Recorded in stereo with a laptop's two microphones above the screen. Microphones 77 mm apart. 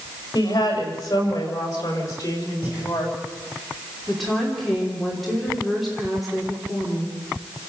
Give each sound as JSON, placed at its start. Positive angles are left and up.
{"t": 0.3, "sound": "a woman speaking", "side_deg": 50, "distance_m": 6.0}
{"t": 2.6, "sound": "breathing", "side_deg": -20, "distance_m": 7.0}
{"t": 4.1, "sound": "a woman speaking", "side_deg": 0, "distance_m": 3.0}